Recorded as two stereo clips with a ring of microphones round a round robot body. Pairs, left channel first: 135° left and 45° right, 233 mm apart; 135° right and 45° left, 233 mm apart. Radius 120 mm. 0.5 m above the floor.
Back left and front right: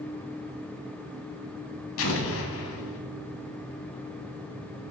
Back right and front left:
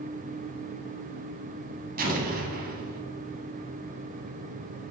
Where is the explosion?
100° left, 1.0 m.